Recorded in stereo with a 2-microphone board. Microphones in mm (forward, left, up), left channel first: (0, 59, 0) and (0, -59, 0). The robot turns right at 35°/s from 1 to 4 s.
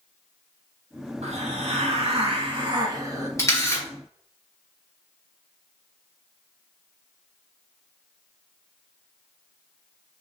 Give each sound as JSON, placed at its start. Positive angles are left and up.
{"t": 1.2, "sound": "a hiss", "azimuth_deg": -100, "distance_m": 0.6}
{"t": 3.4, "sound": "a camera shutter", "side_deg": 25, "distance_m": 1.1}